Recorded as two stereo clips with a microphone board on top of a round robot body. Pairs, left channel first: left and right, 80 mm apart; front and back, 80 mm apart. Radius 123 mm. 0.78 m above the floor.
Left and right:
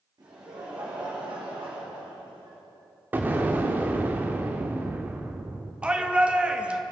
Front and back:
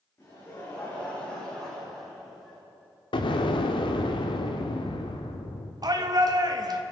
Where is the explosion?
20° right, 0.9 m.